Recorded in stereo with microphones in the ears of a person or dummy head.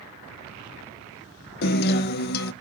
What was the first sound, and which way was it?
A guitar, 55° left (ahead or behind).